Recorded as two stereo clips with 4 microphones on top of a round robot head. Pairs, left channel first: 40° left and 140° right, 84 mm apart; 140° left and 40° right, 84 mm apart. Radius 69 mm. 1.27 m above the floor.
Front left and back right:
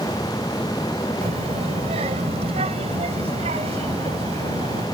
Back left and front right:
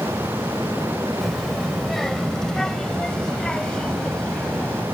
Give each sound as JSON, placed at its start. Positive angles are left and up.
{"t": 1.2, "sound": "a child speaking", "azimuth_deg": -130}